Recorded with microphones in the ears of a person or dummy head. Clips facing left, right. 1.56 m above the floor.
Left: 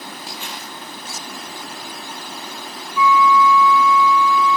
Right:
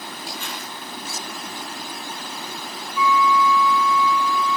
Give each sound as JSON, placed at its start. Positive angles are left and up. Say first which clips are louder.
{"t": 0.3, "sound": "crumpling", "louder": "even", "side_deg": 15, "distance_m": 9.0}
{"t": 3.0, "sound": "a flute", "louder": "left 4 dB", "side_deg": -10, "distance_m": 6.0}